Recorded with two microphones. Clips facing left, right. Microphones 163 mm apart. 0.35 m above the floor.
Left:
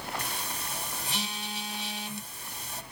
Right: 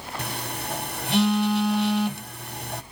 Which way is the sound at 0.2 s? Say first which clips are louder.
Right 6 dB; 65° right (ahead or behind).